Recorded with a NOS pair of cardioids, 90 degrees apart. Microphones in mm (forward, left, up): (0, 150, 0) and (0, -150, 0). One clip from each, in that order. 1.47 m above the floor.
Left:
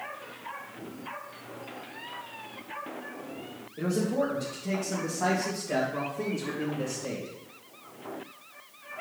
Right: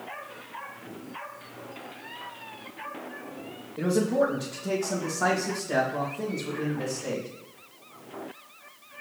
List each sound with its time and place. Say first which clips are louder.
3.8 s a man speaking: right 4 dB; 25° right, 1.5 m; by 7.3 s 15° left, 3 m